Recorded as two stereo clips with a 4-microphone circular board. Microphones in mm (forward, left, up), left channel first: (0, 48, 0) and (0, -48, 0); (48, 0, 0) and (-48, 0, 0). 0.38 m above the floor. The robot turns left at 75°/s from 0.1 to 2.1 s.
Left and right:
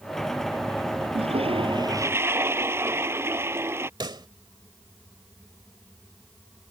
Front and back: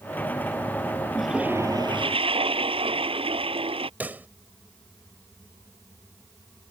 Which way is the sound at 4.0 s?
110° right.